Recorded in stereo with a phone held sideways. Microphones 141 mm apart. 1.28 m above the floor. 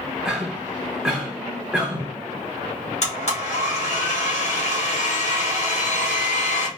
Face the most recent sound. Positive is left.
turn(degrees=55)  # may be behind; listen again after turning